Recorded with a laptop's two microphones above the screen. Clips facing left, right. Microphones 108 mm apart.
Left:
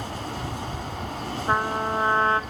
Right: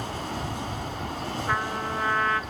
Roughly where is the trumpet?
Left.